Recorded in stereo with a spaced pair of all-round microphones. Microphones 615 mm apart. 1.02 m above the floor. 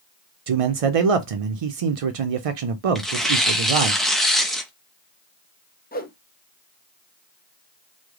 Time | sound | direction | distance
0.5 | a man speaking | 65° right (ahead or behind) | 0.6 m
3.0 | tearing paper | centre (ahead or behind) | 0.5 m
5.9 | a whoosh | 15° left (ahead or behind) | 0.5 m